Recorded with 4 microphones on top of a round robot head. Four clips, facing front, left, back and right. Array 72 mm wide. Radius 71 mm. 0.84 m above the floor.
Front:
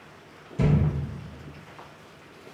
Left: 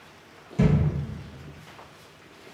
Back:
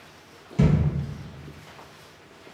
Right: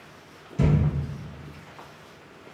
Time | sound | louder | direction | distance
0.6 | a thud | left 1 dB, back 2 dB | 155° left | 2.0 m